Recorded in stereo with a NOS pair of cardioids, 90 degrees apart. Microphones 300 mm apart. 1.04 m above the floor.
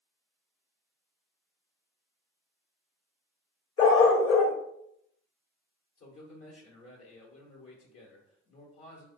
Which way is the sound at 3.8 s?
55° left.